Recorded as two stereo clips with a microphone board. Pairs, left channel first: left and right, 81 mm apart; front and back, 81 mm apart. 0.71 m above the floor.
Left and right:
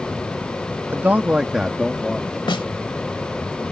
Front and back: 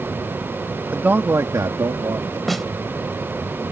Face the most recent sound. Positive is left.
turn(degrees=90)